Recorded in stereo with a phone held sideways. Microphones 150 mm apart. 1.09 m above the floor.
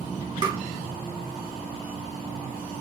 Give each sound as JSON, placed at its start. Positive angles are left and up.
{"t": 0.4, "sound": "tapping", "side_deg": -25, "distance_m": 1.2}